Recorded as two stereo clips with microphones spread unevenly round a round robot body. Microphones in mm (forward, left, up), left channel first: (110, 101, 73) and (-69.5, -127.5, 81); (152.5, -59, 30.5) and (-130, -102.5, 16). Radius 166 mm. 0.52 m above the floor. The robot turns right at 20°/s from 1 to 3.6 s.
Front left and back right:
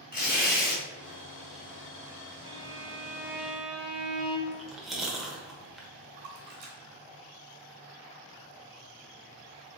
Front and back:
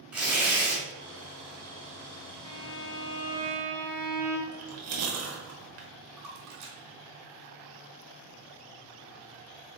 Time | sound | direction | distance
0.1 | tearing paper | 105° left | 1.8 m
2.4 | a violin | 60° right | 1.2 m
4.5 | chewing | 140° left | 0.9 m
6.2 | a splash | 175° right | 1.7 m